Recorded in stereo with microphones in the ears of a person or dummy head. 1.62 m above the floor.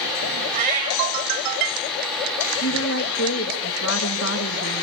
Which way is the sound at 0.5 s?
50° right (ahead or behind).